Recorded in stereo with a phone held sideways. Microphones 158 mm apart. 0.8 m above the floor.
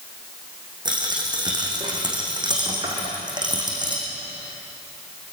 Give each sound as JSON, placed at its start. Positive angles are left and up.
{"t": 0.8, "sound": "a dropped coin", "side_deg": -30, "distance_m": 6.0}